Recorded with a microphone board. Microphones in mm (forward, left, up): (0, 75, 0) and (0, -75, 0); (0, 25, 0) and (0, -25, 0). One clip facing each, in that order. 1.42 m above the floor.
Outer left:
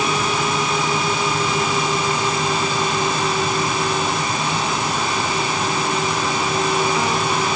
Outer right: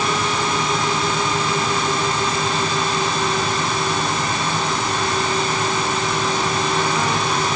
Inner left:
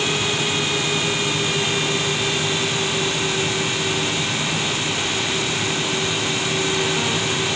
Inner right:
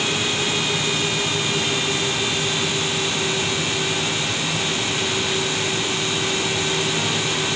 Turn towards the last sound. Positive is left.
No sound to turn to.